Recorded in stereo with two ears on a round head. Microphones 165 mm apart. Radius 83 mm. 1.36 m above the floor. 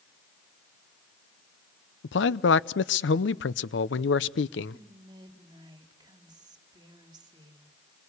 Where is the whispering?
25° right (ahead or behind), 2.5 m.